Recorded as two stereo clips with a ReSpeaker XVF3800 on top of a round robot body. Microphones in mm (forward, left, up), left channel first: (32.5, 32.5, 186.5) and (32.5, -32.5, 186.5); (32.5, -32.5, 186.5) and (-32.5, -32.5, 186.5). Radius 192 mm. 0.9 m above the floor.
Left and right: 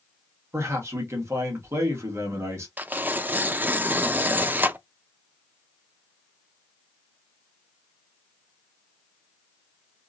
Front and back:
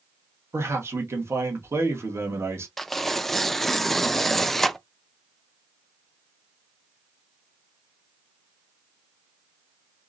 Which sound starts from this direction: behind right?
A man speaking, at 0.5 s.